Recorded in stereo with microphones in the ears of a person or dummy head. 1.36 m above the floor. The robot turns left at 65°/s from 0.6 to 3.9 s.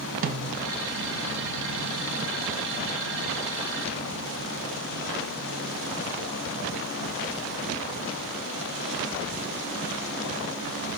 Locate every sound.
0.2 s a snare drum: 45° right (ahead or behind), 0.7 m; by 0.7 s 50° right (ahead or behind), 0.7 m